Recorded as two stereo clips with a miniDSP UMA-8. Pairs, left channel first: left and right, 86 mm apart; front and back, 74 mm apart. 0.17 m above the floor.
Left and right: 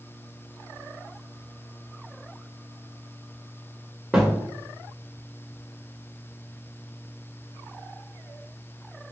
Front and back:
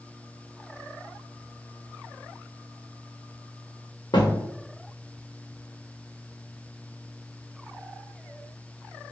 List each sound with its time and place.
4.1 s a thud: 10° right, 1.3 m